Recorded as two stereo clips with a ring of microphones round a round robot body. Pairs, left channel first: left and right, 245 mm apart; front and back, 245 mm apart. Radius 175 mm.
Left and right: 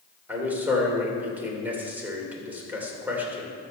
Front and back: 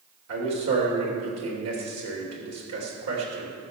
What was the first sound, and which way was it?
A man speaking, 175° right.